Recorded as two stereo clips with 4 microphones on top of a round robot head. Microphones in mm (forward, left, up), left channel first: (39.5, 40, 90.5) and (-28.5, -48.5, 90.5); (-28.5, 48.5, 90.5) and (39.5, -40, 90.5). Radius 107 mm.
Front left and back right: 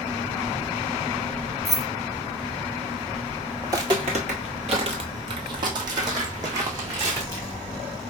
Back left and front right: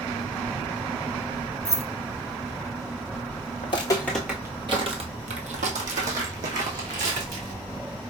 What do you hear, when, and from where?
1.6 s keys jangling: 30° right, 0.7 m
3.6 s footsteps: 165° left, 0.6 m; by 7.6 s 65° right, 2 m